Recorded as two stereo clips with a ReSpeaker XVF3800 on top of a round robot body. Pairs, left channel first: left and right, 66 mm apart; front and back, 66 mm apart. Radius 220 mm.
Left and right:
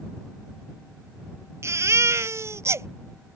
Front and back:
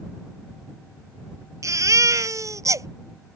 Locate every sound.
1.6 s a baby crying: 140° right